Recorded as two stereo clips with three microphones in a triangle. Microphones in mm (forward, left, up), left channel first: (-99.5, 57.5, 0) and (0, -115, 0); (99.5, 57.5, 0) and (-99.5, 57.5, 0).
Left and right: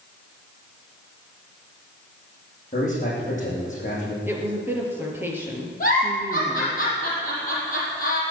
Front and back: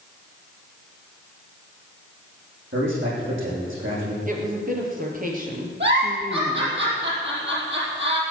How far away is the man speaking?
About 8 m.